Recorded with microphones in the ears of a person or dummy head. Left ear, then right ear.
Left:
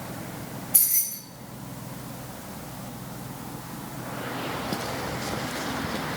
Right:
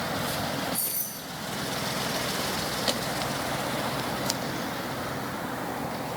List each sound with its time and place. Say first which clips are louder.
0.7 s keys jangling: left 5 dB; 50° left (ahead or behind), 2 m